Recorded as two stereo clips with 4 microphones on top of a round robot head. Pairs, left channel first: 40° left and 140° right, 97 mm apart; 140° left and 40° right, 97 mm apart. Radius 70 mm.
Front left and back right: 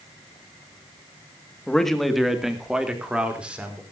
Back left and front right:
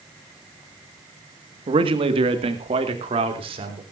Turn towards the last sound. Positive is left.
turn(degrees=-60)